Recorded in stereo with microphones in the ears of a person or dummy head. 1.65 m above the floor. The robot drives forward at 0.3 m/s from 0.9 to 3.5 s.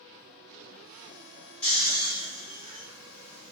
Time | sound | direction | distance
1.6 | snoring | 5° left (ahead or behind) | 1.6 m